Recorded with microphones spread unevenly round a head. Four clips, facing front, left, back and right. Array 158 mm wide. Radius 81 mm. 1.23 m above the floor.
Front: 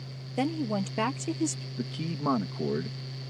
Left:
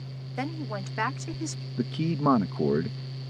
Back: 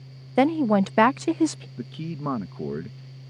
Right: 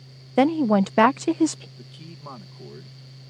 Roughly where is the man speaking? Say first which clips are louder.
Left 16 dB, even; left.